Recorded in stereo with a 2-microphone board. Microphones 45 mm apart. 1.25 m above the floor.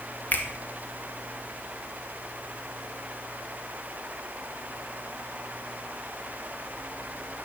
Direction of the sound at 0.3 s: 40° left (ahead or behind).